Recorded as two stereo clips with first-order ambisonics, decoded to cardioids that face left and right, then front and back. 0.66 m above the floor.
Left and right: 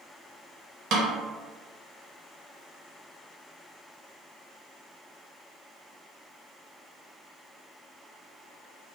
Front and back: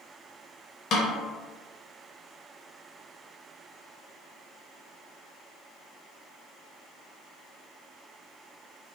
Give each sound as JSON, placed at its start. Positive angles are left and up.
{"t": 0.9, "sound": "a snare drum", "azimuth_deg": -45, "distance_m": 0.5}